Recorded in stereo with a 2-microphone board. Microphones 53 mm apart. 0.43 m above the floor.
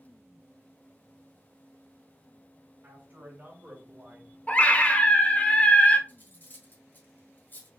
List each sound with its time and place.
2.8 s a man speaking: 40° right (ahead or behind), 2.5 m; by 4.4 s 20° right (ahead or behind), 1.7 m
4.5 s a scream: 30° left (ahead or behind), 0.9 m
6.1 s cutlery clinking: 40° left (ahead or behind), 1.1 m